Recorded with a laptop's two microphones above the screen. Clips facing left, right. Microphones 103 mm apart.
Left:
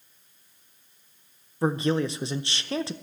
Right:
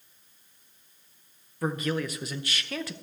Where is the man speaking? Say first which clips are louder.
Left 5 dB; 25° left (ahead or behind), 0.5 m.